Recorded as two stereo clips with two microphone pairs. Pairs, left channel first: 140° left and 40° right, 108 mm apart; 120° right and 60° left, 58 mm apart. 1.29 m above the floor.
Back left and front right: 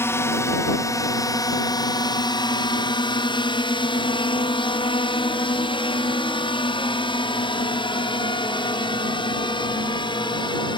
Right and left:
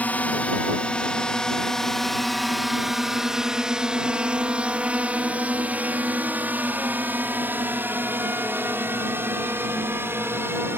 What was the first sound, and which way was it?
A drone, 165° right.